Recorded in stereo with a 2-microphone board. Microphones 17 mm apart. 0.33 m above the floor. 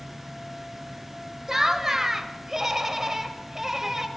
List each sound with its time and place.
1.5 s laughter: 25° right (ahead or behind), 1.0 m